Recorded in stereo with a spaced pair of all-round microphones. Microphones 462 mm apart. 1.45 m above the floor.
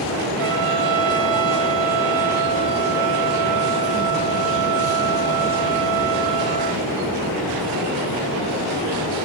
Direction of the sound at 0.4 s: 75° right (ahead or behind).